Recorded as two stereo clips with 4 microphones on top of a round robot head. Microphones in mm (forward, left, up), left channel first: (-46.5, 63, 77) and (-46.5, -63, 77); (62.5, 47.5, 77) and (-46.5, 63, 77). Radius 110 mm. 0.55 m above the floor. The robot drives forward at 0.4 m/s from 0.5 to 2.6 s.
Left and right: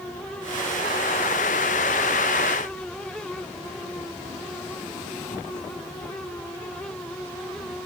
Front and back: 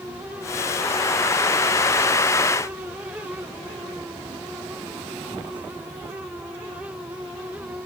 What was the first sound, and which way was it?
Only background noise.